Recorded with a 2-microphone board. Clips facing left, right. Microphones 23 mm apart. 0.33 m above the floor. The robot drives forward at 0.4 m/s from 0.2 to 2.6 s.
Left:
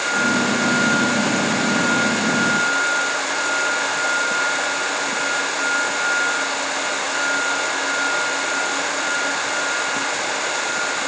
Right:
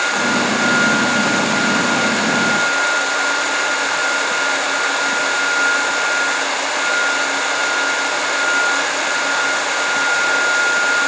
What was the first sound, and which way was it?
Only background noise.